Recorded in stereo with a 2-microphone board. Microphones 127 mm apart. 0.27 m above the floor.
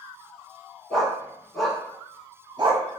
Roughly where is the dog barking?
Centre.